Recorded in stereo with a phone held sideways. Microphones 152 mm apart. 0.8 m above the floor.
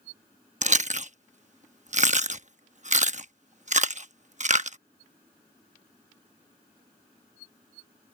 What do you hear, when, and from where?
0.6 s chewing: 55° right (ahead or behind)